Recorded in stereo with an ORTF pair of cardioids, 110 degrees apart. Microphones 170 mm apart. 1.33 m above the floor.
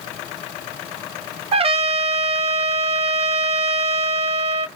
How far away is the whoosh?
I don't hear a whoosh.